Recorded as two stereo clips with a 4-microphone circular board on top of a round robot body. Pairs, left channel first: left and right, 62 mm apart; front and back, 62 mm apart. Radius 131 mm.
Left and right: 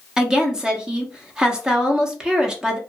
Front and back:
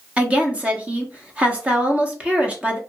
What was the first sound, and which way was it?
A woman speaking, 150° right.